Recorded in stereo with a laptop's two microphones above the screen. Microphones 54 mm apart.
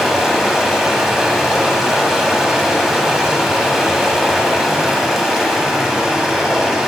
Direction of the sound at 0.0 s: 5° right (ahead or behind).